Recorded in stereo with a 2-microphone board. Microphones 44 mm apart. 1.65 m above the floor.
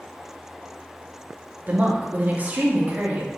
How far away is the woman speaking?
About 0.7 m.